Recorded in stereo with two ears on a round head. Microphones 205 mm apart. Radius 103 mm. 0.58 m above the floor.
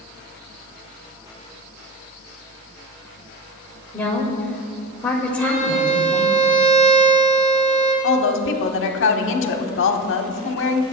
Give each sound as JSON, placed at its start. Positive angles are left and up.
{"t": 3.9, "sound": "a woman speaking", "side_deg": 5, "distance_m": 2.5}
{"t": 5.4, "sound": "a violin", "side_deg": -65, "distance_m": 4.5}
{"t": 8.0, "sound": "a woman speaking", "side_deg": 60, "distance_m": 1.3}